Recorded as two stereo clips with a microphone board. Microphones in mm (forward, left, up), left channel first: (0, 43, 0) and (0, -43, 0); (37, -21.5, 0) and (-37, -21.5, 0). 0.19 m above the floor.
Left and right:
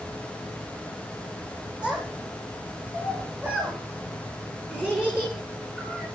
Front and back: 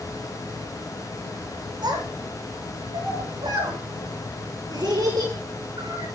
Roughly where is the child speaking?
Behind.